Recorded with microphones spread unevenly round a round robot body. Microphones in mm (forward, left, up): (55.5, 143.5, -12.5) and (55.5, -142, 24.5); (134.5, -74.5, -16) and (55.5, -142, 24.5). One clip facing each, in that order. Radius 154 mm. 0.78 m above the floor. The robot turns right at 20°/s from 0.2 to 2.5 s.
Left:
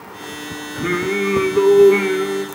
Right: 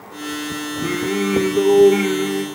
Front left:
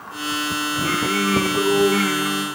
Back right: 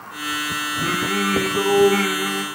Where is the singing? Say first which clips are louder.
Left 2 dB, even; 150° left, 1.6 m; by 2.5 s 175° right, 1.6 m.